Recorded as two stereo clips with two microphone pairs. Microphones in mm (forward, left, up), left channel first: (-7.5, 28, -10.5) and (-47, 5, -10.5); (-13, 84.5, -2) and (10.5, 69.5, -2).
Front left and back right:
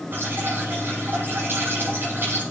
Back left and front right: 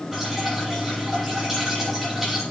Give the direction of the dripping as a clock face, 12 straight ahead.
4 o'clock.